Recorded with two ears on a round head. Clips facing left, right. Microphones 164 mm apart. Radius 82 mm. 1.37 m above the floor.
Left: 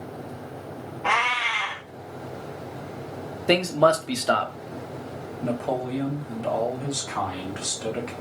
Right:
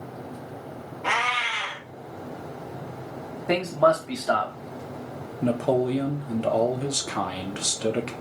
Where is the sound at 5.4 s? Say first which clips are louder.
Right 5 dB; 40° right (ahead or behind), 0.6 m.